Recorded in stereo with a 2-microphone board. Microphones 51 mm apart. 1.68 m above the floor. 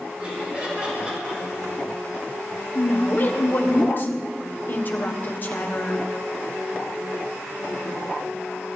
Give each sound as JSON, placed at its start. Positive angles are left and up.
{"t": 0.2, "sound": "laughter", "side_deg": -20, "distance_m": 5.5}
{"t": 2.8, "sound": "a woman speaking", "side_deg": 40, "distance_m": 1.2}